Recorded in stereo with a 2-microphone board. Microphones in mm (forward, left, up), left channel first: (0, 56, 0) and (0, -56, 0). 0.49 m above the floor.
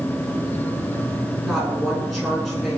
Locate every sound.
1.4 s a woman speaking: centre (ahead or behind), 6 m